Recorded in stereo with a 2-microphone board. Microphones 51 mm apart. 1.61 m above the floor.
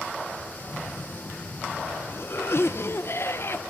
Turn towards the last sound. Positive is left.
turn(degrees=55)  # may be behind; listen again after turning